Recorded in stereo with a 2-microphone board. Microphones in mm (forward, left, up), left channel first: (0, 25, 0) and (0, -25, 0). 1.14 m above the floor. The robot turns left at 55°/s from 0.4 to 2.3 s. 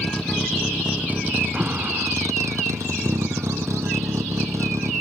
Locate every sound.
0.0 s a vehicle: 10° left; by 5.0 s 95° right
1.5 s an alarm: 20° right; by 2.1 s 55° right